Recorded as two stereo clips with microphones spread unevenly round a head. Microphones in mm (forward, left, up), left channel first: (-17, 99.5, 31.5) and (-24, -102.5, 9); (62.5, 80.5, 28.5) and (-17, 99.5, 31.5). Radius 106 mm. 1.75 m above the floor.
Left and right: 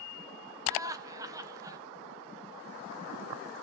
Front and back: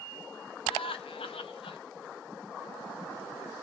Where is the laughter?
15° right, 1.7 m.